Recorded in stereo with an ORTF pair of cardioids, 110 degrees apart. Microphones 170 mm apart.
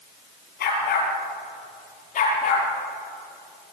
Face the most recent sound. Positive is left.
turn(degrees=45)